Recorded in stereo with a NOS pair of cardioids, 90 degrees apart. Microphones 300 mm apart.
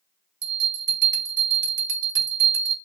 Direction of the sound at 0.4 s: 35° right.